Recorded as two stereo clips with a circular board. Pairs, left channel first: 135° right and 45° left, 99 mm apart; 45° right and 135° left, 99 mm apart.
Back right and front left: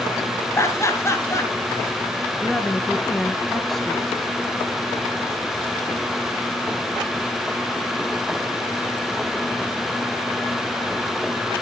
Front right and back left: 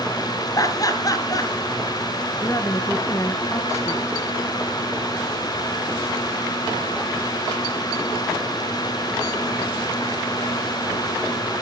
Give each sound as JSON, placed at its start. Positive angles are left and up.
{"t": 0.6, "sound": "laughter", "azimuth_deg": -80, "distance_m": 1.9}
{"t": 2.4, "sound": "a woman speaking", "azimuth_deg": -50, "distance_m": 1.2}